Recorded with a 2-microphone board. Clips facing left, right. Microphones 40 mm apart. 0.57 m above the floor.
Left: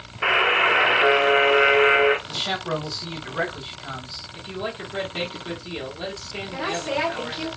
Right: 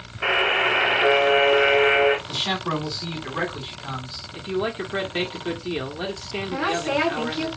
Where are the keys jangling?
I don't hear keys jangling.